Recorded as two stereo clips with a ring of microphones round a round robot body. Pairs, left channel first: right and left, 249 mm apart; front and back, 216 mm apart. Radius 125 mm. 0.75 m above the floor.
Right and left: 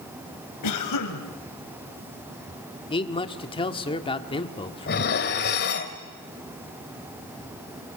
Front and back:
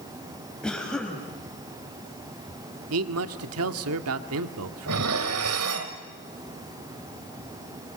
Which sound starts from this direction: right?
A cough, at 0.6 s.